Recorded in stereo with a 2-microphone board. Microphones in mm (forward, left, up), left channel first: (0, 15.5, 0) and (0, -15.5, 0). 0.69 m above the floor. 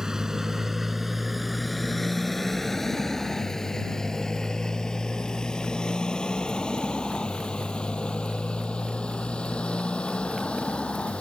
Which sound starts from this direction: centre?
A motorcycle, at 0.0 s.